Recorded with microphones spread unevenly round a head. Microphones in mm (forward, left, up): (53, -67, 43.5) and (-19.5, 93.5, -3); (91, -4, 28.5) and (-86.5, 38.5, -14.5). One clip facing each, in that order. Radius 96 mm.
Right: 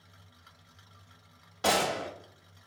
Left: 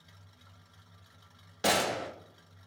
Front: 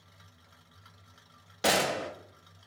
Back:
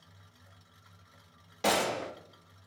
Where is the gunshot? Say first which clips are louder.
Right 1 dB, front 1 dB; 35° left, 0.9 m.